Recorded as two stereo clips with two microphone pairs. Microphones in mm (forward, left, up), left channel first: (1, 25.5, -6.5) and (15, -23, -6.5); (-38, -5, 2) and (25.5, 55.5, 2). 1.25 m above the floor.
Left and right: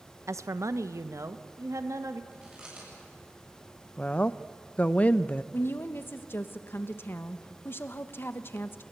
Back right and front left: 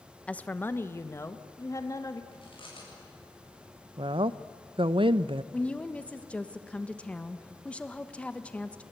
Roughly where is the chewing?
Behind right.